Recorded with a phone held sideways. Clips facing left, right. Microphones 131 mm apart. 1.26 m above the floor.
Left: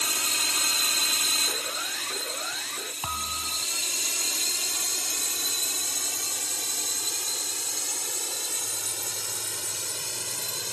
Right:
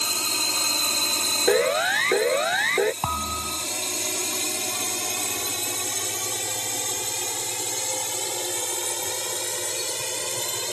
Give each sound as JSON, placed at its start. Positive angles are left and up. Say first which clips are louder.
{"t": 0.0, "sound": "a drone", "louder": "right 3 dB", "side_deg": -30}
{"t": 1.5, "sound": "a siren", "louder": "right 17 dB", "side_deg": -85}
{"t": 3.0, "sound": "a thud", "louder": "right 7 dB", "side_deg": -45}